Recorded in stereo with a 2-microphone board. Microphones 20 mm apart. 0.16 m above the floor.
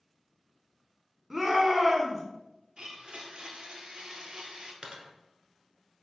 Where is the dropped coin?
55° right (ahead or behind), 1.0 m.